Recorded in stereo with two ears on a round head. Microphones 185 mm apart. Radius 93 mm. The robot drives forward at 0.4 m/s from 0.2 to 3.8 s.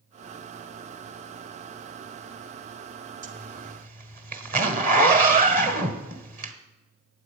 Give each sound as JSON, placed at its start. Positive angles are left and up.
{"t": 3.2, "sound": "a zipper", "side_deg": -40, "distance_m": 1.7}